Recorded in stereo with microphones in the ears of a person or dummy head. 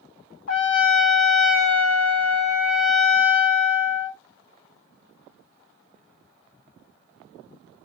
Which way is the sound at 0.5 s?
50° left (ahead or behind).